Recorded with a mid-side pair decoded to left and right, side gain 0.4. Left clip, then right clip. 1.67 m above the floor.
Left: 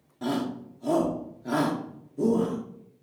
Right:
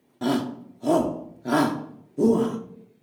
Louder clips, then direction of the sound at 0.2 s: Right 4 dB; 50° right.